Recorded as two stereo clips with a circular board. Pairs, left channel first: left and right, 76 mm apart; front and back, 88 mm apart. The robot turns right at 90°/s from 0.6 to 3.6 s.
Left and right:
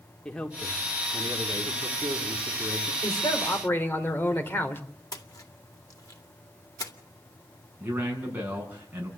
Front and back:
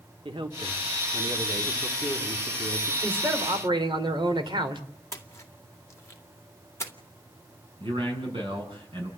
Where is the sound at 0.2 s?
170° left, 1.9 m; by 2.9 s 20° left, 1.9 m.